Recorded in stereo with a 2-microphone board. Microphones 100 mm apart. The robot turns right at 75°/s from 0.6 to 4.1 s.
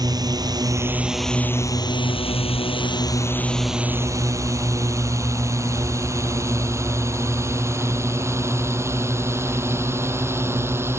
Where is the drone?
40° right (ahead or behind); by 11.0 s 25° right (ahead or behind).